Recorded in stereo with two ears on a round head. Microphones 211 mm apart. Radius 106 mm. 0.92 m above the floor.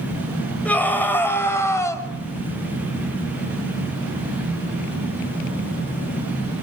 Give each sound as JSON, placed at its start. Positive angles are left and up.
{"t": 0.7, "sound": "a scream", "side_deg": 5, "distance_m": 5.5}